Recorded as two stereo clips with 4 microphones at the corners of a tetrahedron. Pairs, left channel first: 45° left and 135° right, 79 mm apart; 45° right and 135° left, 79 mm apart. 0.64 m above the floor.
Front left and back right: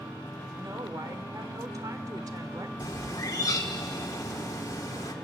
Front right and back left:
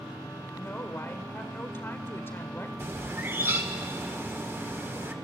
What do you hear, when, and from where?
0.5 s a woman speaking: 100° right, 1.9 m
2.8 s a bird: 85° left, 1.6 m